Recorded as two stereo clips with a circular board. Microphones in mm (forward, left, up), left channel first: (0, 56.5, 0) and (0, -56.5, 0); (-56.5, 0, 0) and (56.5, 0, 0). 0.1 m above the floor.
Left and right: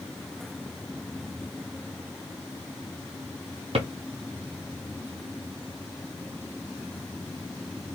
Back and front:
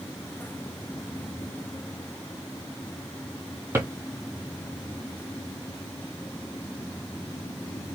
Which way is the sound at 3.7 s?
65° right.